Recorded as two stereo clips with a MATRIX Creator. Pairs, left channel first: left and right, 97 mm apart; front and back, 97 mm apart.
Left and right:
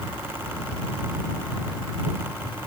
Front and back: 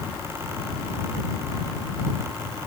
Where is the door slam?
No door slam in this recording.